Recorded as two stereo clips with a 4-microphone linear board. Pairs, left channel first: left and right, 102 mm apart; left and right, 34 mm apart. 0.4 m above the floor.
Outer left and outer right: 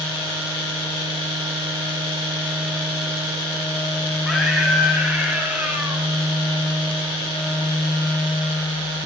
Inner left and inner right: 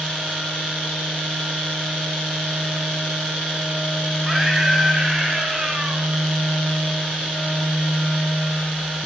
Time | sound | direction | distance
4.2 | a scream | centre (ahead or behind) | 5 m